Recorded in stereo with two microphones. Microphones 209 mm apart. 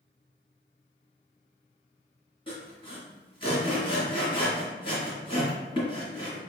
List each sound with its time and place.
2.5 s sawing: 25° left (ahead or behind), 2.0 m